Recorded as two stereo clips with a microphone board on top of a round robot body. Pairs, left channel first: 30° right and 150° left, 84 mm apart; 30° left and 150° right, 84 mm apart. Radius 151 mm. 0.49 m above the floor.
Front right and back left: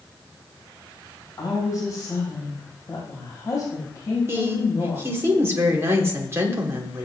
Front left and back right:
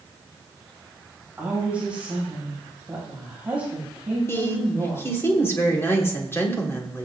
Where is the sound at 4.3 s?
90° left, 2.5 m.